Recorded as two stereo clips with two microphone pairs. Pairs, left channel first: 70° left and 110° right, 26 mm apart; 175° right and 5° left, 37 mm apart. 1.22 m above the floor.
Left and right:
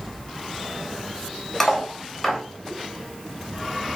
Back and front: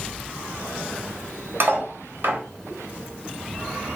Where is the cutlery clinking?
Straight ahead, 1.1 m.